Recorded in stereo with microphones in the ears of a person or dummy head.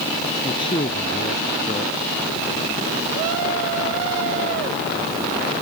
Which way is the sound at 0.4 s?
30° left (ahead or behind).